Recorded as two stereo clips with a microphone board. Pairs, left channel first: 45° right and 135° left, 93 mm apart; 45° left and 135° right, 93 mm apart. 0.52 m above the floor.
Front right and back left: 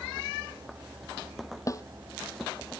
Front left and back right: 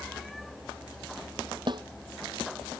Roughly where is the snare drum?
Right.